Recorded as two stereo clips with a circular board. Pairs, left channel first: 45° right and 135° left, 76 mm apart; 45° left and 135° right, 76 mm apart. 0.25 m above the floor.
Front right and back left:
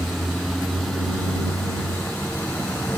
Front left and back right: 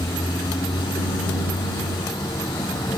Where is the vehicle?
45° left; by 3.0 s 25° left.